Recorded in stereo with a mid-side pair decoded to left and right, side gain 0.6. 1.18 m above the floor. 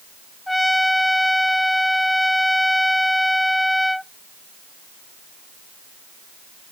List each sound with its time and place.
0.5 s a trumpet: 5° left